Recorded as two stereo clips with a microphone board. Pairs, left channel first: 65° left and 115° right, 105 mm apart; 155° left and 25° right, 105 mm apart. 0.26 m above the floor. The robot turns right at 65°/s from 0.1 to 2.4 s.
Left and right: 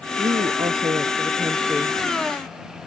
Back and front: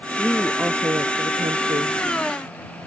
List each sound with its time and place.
0.2 s a woman speaking: 120° right; by 2.0 s 5° right